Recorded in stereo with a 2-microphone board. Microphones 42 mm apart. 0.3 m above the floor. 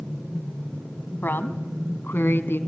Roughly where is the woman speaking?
Left.